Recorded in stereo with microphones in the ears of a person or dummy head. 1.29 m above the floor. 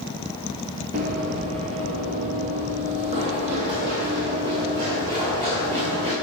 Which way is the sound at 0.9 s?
30° right (ahead or behind).